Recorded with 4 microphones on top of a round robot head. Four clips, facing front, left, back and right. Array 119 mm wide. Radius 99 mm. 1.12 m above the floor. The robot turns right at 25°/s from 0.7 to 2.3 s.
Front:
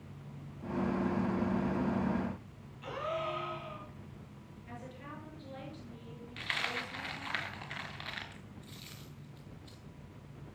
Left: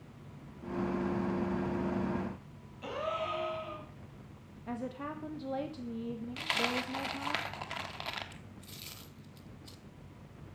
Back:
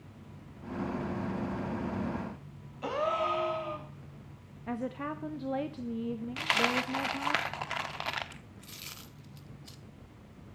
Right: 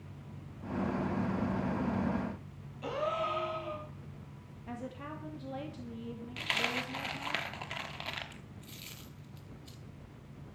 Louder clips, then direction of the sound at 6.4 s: Left 1 dB, back 8 dB; 170° left.